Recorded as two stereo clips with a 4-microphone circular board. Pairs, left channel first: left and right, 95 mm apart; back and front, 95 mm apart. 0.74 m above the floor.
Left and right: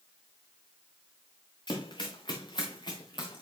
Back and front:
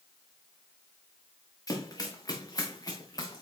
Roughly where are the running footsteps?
Behind left.